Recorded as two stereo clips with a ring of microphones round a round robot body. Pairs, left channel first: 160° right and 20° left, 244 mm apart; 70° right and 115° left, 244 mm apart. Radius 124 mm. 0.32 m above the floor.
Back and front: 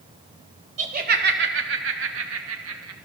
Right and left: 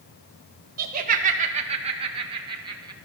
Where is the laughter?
75° left, 1.2 m; by 3.0 s 40° left, 2.5 m.